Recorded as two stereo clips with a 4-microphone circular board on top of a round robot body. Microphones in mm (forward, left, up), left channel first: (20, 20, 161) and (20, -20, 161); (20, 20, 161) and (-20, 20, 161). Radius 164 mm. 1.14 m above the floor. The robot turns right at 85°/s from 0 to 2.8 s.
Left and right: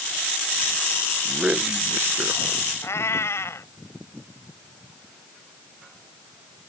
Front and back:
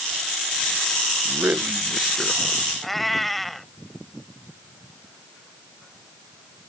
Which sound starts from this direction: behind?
A man speaking, at 1.2 s.